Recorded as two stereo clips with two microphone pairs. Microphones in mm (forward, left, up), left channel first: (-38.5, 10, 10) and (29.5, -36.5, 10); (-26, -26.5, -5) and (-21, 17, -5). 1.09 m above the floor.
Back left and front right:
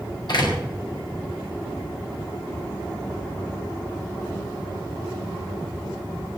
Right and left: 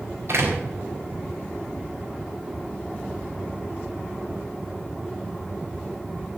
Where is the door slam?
115° left, 5.5 m.